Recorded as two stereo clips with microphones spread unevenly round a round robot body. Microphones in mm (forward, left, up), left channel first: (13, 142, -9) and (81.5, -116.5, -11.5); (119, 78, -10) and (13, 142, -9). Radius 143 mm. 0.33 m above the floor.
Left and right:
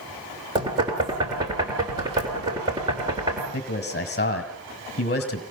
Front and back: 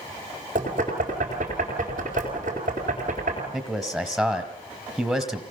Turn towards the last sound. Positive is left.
turn(degrees=60)